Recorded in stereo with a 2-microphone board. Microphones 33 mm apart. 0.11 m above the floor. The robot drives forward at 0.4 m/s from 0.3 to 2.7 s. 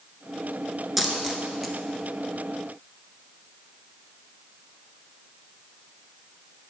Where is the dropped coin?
Centre (ahead or behind), 0.5 m.